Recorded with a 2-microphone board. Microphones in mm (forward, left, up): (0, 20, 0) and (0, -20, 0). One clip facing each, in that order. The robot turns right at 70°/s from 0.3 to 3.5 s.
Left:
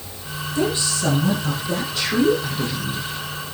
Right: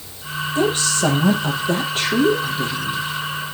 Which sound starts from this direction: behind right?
A woman speaking, at 0.6 s.